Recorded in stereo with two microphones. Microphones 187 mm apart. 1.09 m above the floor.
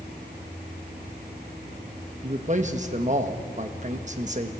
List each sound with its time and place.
2.2 s a man speaking: 40° right (ahead or behind), 1.3 m